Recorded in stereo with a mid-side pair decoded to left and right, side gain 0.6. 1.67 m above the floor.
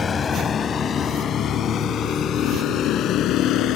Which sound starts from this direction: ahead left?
A vehicle, at 0.0 s.